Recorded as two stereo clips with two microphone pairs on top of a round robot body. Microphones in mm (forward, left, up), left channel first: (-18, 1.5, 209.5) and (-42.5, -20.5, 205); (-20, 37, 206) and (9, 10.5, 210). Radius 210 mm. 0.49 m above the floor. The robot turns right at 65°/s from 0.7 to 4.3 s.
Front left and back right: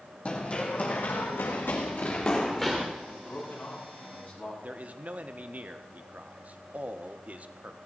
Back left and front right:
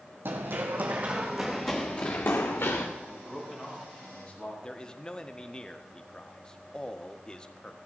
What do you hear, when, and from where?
0.2 s running footsteps: 10° right, 1.3 m; by 2.9 s 145° left, 3 m
3.0 s a man speaking: 5° right, 7 m; by 4.5 s 80° left, 7 m
4.6 s a man speaking: 160° right, 1.4 m